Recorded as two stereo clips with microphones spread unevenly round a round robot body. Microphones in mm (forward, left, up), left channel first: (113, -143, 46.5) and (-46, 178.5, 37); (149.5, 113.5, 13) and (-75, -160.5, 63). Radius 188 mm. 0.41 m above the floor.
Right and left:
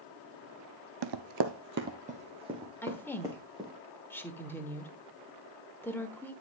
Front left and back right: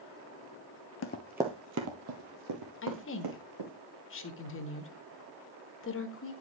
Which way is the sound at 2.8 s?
20° left.